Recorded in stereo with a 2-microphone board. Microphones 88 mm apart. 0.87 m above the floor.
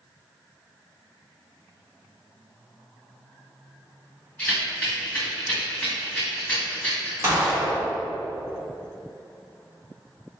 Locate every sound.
4.4 s a rattle: 15° left (ahead or behind), 2.0 m
7.2 s a gunshot: 30° right (ahead or behind), 1.6 m